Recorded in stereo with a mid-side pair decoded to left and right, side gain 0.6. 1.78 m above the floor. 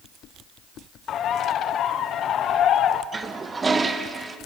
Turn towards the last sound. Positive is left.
turn(degrees=-25)